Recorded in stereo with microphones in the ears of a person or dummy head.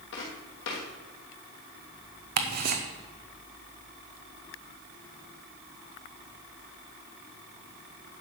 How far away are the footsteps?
About 3 m.